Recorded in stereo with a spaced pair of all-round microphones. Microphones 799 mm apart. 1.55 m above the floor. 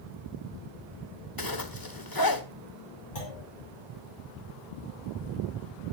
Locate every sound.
1.4 s a zipper: 25° left (ahead or behind), 1.5 m
3.1 s a clunk: 85° left, 8.5 m